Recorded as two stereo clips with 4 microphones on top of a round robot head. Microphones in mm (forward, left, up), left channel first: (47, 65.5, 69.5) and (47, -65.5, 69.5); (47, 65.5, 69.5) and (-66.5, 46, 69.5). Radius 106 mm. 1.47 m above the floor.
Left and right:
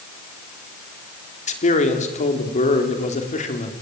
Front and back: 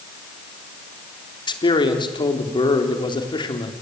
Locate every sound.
1.5 s a man speaking: 60° left, 4 m